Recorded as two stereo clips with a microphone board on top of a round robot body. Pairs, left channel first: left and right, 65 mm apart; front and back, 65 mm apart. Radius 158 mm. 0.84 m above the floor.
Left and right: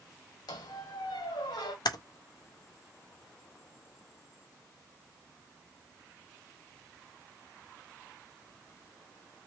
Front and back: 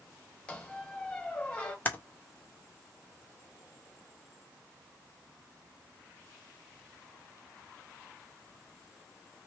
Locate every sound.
0.5 s a squeak: 75° left, 1.2 m
1.9 s typing on a keyboard: 65° left, 0.7 m